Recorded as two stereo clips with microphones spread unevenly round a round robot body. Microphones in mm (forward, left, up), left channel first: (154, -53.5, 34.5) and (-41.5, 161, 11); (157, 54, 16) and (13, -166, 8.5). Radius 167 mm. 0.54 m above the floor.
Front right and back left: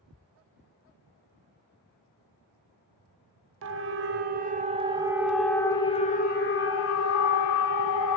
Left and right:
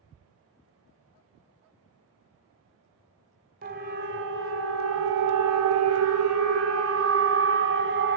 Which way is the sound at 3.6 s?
175° left.